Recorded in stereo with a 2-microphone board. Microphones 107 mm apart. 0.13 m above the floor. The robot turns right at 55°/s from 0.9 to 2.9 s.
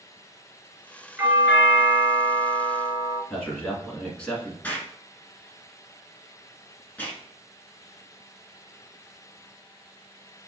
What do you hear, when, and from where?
1.2 s a doorbell: 50° right, 2.5 m; by 3.2 s 45° left, 2.5 m
3.3 s a man speaking: 10° left (ahead or behind), 1.4 m
4.6 s an explosion: 15° left (ahead or behind), 1.4 m